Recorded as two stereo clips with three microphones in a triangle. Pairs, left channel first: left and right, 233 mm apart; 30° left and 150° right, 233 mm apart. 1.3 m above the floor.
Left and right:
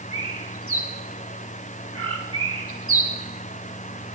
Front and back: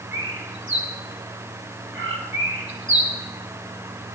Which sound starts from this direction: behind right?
A bird, at 0.1 s.